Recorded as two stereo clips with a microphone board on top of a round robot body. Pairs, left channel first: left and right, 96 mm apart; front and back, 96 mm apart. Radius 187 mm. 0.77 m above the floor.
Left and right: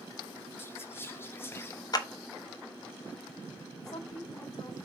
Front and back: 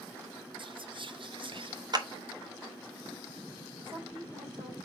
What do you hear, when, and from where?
0.6 s whispering: 155° left, 1.2 m
1.9 s a clap: 135° left, 1.5 m
3.8 s a woman speaking: 140° left, 5 m